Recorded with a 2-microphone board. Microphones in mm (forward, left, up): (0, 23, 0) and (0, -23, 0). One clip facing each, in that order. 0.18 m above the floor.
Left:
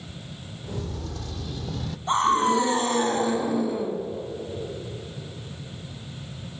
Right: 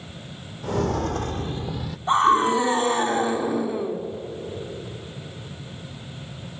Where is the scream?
15° right (ahead or behind), 1.8 m.